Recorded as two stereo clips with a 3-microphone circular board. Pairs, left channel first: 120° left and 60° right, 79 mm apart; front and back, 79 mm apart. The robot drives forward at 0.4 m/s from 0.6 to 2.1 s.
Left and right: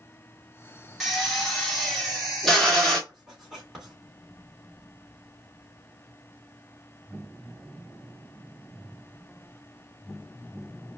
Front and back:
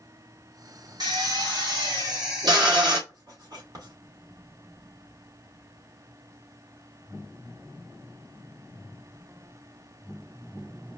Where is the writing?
145° right, 3 m.